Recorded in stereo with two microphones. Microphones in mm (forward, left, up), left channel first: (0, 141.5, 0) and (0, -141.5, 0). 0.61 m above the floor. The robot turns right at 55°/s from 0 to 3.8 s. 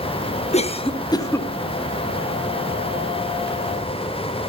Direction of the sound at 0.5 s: 25° left (ahead or behind).